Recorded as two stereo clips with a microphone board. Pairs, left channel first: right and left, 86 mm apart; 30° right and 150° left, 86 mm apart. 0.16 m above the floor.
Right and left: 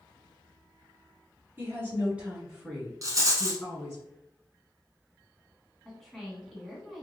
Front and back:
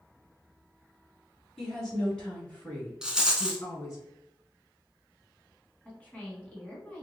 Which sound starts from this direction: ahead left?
A woman speaking, at 1.6 s.